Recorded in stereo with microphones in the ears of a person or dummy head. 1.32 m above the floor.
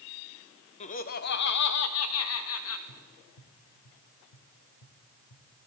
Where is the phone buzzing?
I don't hear a phone buzzing.